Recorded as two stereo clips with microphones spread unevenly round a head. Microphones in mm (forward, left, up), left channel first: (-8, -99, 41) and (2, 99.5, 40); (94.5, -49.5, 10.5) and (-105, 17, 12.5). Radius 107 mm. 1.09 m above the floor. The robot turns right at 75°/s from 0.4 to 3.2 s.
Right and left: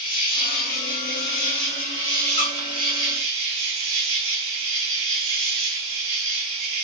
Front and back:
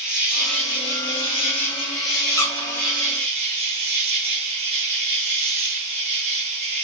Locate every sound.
0.0 s an insect: 115° right, 2.5 m; by 6.8 s 95° left, 2.5 m
2.4 s a squeak: 80° right, 0.8 m; by 2.7 s 55° right, 0.8 m